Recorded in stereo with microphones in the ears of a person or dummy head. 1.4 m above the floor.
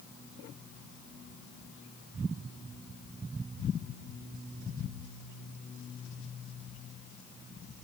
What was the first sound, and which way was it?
Only background noise.